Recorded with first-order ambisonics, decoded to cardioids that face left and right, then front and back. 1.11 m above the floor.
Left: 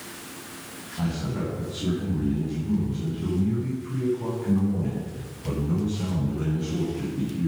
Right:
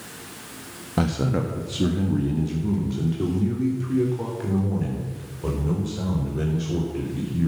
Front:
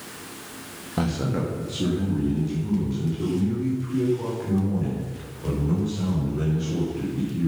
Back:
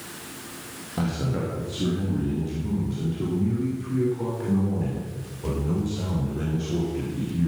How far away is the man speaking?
About 1.4 m.